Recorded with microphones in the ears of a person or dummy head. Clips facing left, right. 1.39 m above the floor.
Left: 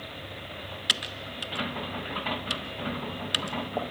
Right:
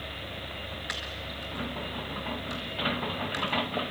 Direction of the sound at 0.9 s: 35° left (ahead or behind).